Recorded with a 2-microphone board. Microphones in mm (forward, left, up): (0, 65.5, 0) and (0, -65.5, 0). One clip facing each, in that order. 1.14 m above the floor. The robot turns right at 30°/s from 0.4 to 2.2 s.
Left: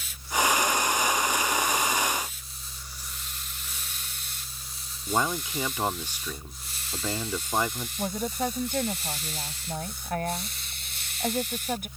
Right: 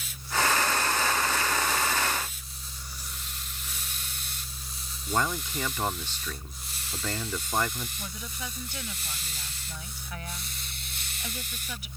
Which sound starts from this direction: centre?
A man speaking, at 5.1 s.